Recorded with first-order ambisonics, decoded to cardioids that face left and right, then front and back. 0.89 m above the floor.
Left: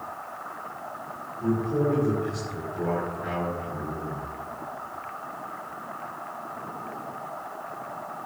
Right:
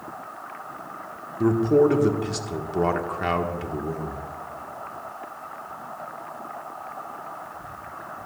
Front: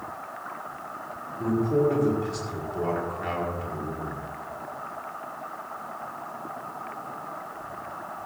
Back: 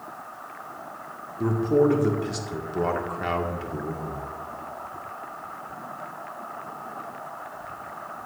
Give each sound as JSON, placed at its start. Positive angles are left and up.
{"t": 1.4, "sound": "a man speaking", "azimuth_deg": -110, "distance_m": 1.7}